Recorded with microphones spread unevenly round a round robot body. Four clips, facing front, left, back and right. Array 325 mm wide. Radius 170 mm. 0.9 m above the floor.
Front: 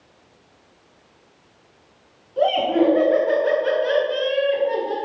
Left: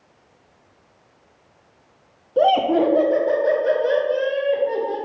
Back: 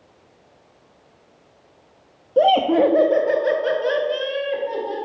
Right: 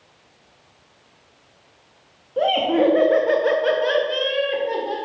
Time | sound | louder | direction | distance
2.4 | laughter | left 2 dB, back 3 dB | 160° left | 1.2 m